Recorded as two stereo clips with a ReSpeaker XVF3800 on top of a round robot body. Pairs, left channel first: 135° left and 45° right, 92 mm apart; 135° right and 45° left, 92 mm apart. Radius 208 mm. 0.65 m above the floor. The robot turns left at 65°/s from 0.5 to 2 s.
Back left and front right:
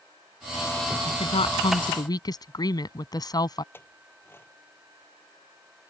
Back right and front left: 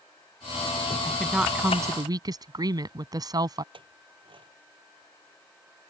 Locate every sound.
1.1 s a woman speaking: 150° left; by 3.6 s 90° left
3.7 s a clink: 70° left